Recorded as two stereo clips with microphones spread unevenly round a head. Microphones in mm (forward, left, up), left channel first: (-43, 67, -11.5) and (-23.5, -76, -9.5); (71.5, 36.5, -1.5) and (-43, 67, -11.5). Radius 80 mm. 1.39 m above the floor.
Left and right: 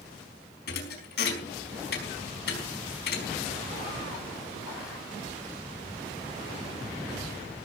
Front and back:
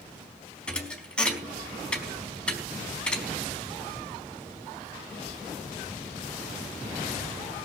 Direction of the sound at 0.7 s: 65° left.